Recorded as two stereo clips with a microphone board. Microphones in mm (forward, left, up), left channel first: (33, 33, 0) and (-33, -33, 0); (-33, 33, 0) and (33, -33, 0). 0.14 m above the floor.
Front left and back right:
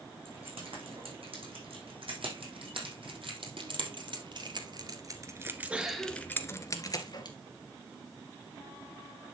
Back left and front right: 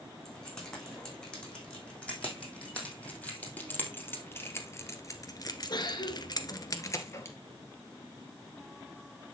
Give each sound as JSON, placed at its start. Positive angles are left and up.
{"t": 0.2, "sound": "keys jangling", "azimuth_deg": -145, "distance_m": 6.0}